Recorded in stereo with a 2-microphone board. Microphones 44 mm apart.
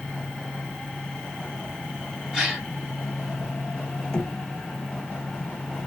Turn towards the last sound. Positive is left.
turn(degrees=15)  # may be behind; listen again after turning